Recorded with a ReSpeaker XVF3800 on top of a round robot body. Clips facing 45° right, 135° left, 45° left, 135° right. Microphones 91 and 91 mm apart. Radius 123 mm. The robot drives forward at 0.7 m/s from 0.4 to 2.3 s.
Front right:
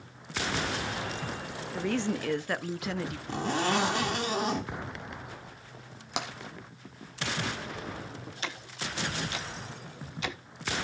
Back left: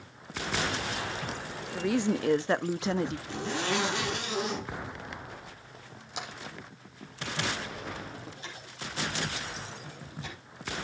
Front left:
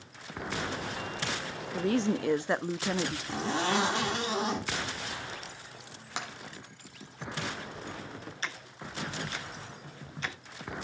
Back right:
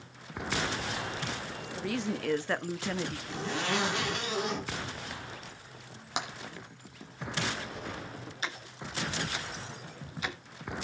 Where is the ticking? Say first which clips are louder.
Front right 4 dB, back right 2 dB; 55° right, 0.5 m.